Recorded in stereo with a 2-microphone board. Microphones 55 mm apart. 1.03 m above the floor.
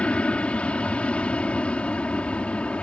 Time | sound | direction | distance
0.0 | an aircraft | 20° left (ahead or behind) | ?